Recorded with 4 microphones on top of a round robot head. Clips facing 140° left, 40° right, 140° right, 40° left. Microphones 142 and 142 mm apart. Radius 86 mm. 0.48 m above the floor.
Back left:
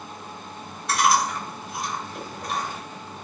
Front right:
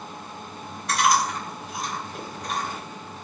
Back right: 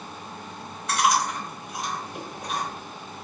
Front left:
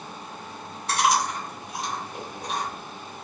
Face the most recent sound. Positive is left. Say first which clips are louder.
# back left 1 dB, even
turn(degrees=-5)